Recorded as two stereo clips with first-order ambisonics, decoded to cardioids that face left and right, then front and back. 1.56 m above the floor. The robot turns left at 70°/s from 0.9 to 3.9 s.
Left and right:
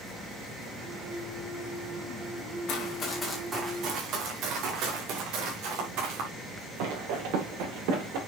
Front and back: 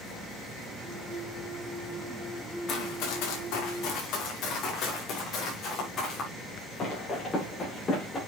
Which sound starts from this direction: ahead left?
Running footsteps, at 2.7 s.